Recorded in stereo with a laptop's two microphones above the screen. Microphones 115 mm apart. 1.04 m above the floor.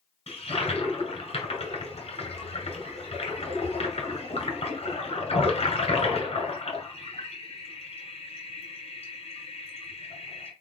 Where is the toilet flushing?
75° left (ahead or behind), 1.8 m.